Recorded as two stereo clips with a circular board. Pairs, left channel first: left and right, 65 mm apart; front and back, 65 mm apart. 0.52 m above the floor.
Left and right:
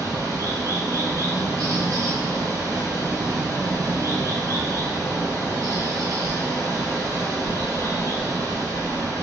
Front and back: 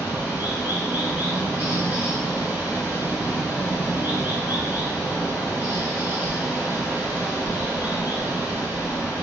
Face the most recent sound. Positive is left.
turn(degrees=-120)